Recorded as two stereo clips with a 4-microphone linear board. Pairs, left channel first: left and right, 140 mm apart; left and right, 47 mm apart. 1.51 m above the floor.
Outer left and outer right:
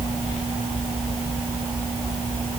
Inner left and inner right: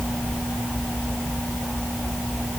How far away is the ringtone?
I don't hear a ringtone.